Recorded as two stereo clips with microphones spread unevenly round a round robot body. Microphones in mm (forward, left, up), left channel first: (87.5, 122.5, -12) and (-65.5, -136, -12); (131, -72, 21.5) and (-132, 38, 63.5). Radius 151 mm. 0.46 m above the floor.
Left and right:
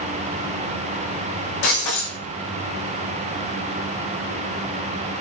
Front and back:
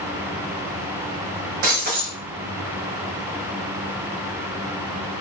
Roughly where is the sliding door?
I don't hear a sliding door.